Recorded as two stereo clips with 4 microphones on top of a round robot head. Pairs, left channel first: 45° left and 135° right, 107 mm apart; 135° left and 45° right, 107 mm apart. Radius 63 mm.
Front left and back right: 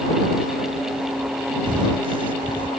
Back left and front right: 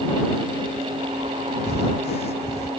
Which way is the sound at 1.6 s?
175° left.